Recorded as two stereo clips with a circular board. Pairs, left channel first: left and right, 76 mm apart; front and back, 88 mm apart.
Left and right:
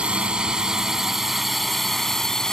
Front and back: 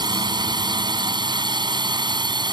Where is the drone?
165° right; by 2.5 s 170° left.